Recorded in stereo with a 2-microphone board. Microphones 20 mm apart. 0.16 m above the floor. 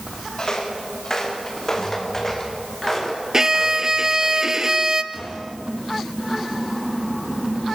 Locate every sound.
0.4 s footsteps: 35° left (ahead or behind), 6 m; by 4.3 s 10° left (ahead or behind), 6.5 m
3.3 s a violin: 25° right (ahead or behind), 1.0 m
5.1 s a gunshot: 25° left (ahead or behind), 8.5 m